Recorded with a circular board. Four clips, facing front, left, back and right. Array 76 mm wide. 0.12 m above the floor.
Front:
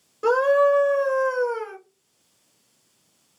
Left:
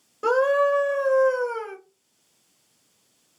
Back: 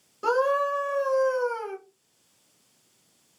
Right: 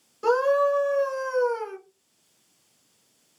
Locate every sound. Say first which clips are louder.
0.2 s a scream: left 1 dB, front 6 dB; 65° left, 1.7 m